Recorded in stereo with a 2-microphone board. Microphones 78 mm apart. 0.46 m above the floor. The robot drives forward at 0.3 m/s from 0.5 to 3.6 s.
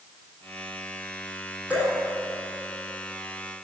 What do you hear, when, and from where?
1.7 s dripping: 20° right (ahead or behind), 5 m; by 1.9 s 15° right (ahead or behind), 5 m